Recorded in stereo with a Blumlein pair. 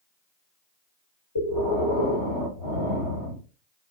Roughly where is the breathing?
Ahead left.